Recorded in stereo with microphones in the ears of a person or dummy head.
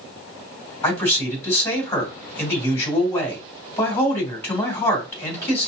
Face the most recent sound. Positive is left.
turn(degrees=15)  # may be behind; listen again after turning